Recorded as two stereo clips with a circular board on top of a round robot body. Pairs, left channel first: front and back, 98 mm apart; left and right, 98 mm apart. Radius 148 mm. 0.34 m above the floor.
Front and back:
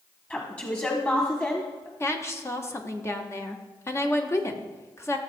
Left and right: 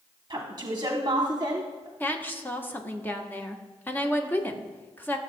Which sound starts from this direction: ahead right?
A woman speaking, at 0.3 s.